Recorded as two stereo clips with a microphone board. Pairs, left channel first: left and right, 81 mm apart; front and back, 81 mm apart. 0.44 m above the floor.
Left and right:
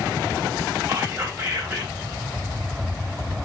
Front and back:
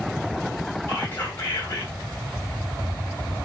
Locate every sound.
0.9 s whispering: 50° right, 1.4 m